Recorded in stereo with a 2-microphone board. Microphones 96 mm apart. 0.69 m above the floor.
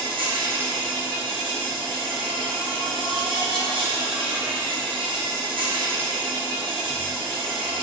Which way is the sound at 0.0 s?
60° right (ahead or behind).